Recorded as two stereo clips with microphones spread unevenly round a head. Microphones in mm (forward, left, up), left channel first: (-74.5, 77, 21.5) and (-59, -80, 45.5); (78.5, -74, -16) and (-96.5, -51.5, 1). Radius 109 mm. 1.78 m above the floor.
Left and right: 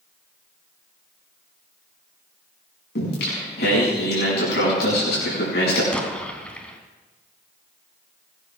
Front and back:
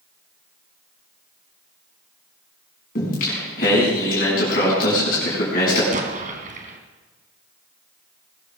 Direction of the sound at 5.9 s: 175° right.